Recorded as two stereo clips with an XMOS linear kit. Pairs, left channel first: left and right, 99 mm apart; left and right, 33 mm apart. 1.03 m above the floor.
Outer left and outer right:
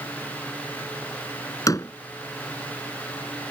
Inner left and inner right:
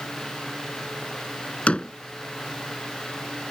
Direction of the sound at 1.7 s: 35° left (ahead or behind).